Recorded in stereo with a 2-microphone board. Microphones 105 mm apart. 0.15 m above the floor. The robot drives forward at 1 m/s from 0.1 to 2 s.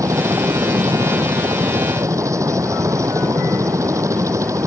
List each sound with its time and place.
0.0 s a helicopter: 30° right (ahead or behind)